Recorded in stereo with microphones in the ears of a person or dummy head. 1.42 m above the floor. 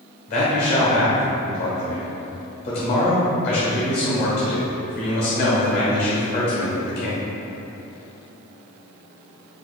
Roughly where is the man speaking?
Left.